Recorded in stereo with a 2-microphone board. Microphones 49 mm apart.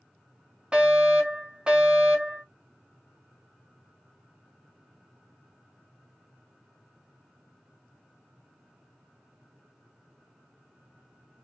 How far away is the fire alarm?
About 1.9 m.